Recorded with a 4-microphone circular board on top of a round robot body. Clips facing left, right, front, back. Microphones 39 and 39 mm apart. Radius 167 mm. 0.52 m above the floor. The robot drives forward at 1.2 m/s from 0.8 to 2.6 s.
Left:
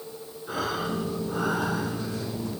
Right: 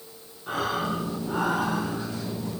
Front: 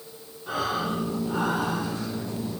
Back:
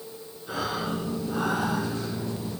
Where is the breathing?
60° right, 8 m; by 2.6 s 75° right, 7 m.